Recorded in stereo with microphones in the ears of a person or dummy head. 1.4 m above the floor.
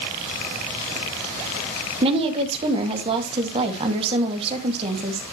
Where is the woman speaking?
35° right (ahead or behind), 2.0 m.